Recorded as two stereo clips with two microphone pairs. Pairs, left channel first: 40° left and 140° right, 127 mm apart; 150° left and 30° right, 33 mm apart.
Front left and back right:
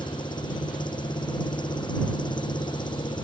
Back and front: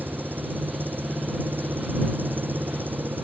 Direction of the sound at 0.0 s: 15° right.